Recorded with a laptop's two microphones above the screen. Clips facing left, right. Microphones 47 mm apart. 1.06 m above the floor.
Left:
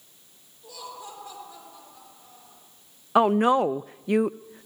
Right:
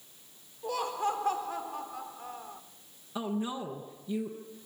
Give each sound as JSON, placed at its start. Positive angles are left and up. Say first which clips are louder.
{"t": 0.6, "sound": "laughter", "louder": "right 10 dB", "side_deg": -55, "distance_m": 3.5}
{"t": 3.1, "sound": "a woman speaking", "louder": "left 15 dB", "side_deg": 70, "distance_m": 0.5}